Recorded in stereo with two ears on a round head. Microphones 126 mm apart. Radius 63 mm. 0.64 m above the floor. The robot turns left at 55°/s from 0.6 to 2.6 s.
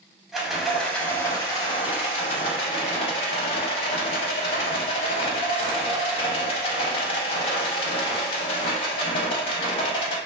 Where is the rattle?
175° right, 0.6 m; by 10.2 s 75° left, 0.6 m.